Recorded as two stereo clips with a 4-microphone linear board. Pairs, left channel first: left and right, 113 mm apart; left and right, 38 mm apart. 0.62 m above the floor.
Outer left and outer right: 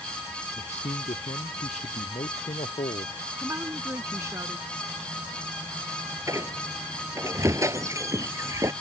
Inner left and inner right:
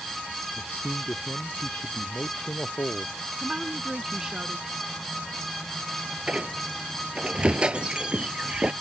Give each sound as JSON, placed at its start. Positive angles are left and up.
{"t": 0.6, "sound": "a man speaking", "side_deg": 80}
{"t": 3.4, "sound": "a woman speaking", "side_deg": -25}
{"t": 6.3, "sound": "a squeak", "side_deg": -25}